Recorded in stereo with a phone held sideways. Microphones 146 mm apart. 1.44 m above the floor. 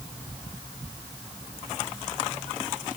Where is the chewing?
I don't hear chewing.